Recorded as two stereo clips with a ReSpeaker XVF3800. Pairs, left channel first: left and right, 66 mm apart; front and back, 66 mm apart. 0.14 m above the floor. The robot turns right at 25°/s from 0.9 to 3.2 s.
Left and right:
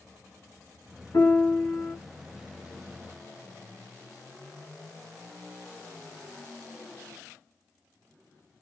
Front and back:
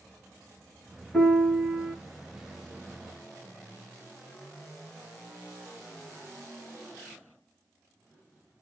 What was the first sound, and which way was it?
A piano, 75° left.